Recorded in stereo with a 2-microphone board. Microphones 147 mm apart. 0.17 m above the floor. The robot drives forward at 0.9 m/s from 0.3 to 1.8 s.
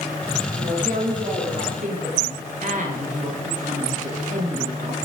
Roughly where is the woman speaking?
Right.